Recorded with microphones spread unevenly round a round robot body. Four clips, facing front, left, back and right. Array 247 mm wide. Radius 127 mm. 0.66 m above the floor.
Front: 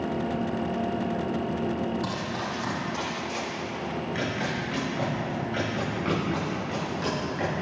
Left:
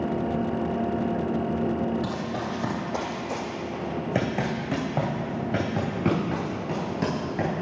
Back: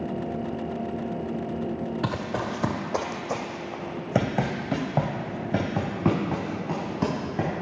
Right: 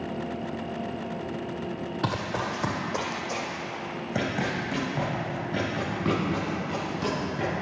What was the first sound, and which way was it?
Running footsteps, 140° right.